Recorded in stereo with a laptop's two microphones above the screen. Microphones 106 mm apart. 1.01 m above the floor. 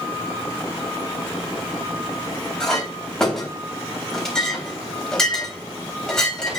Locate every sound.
2.6 s a clink: 5° left (ahead or behind), 3.5 m